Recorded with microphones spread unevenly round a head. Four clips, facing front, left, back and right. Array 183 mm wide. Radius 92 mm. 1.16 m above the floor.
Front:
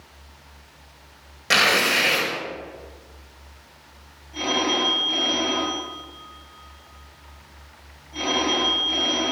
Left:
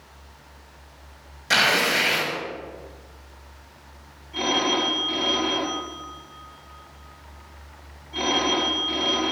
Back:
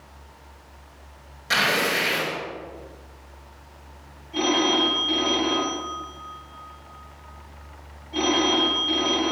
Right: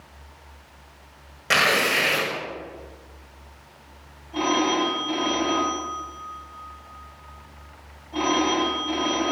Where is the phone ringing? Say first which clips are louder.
Right 2 dB, back 2 dB; 110° right, 7 m.